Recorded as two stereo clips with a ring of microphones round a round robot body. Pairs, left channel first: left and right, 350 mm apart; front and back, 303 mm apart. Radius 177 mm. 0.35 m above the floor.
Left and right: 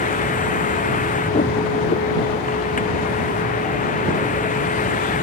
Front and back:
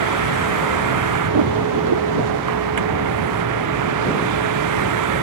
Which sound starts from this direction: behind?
A vehicle, at 0.0 s.